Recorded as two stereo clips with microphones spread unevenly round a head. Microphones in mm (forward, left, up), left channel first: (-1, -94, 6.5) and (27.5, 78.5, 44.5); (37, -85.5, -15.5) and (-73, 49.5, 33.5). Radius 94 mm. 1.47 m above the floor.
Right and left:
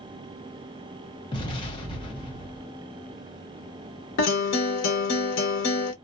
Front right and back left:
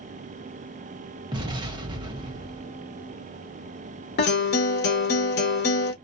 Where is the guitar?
85° right, 1.1 m.